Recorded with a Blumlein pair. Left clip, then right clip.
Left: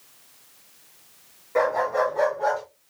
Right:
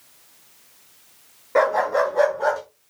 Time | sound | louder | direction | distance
1.6 | a dog barking | right 3 dB | 20° right | 6.5 m